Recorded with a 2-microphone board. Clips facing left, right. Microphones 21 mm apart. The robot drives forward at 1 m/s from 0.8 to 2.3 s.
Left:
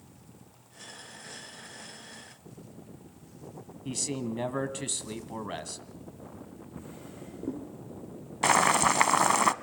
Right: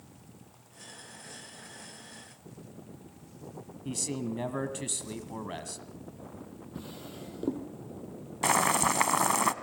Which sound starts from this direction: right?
A drawer, at 6.8 s.